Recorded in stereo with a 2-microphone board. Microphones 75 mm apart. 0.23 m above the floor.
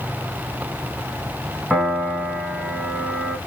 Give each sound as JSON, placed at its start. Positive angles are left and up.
{"t": 1.7, "sound": "a piano", "side_deg": 5, "distance_m": 2.5}